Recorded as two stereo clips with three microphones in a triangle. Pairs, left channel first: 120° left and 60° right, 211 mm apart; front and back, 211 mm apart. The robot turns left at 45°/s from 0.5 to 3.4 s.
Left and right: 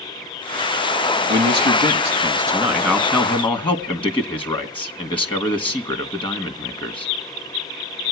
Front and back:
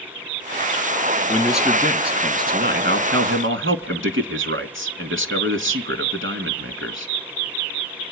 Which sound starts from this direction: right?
A man speaking, at 1.3 s.